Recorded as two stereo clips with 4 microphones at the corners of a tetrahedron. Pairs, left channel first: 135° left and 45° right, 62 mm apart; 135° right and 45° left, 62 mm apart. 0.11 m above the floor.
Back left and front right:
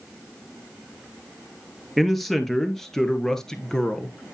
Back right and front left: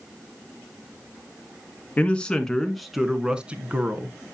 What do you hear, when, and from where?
2.0 s a man speaking: 140° right, 1.1 m; by 4.1 s 65° left, 1.3 m